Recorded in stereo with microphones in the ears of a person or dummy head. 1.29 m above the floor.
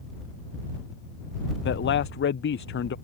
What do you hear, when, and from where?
1.6 s a man speaking: 55° left (ahead or behind)